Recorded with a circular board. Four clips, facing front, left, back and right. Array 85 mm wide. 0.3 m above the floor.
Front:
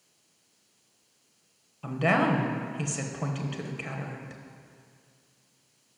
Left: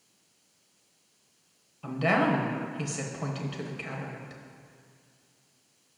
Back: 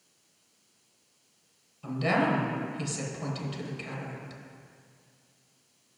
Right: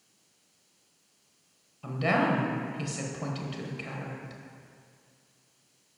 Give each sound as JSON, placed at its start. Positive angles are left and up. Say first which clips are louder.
{"t": 1.8, "sound": "a woman speaking", "louder": "left 1 dB, front 2 dB", "azimuth_deg": 15, "distance_m": 1.1}